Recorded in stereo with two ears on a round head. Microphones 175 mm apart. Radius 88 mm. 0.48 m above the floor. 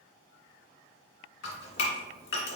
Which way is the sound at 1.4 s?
65° left (ahead or behind).